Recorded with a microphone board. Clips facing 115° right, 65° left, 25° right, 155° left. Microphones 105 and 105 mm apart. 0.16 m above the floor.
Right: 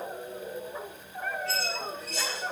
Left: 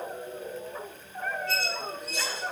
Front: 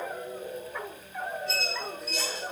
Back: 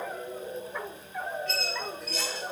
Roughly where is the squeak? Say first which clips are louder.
Left 1 dB, even; right.